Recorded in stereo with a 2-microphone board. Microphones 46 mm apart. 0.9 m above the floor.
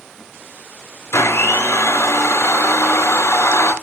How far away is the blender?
About 4.5 m.